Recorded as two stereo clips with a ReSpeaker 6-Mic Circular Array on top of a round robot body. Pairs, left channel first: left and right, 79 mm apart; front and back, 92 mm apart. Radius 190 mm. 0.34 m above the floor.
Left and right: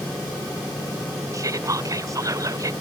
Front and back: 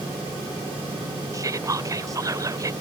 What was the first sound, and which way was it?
Whispering, 130° right.